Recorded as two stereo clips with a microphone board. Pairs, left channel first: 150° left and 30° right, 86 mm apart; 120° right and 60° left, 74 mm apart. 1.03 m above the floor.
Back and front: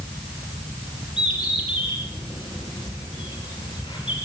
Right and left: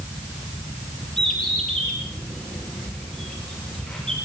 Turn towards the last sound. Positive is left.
turn(degrees=160)